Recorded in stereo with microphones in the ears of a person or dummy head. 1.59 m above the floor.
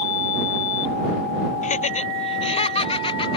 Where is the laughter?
40° left (ahead or behind); by 3.4 s 30° left (ahead or behind).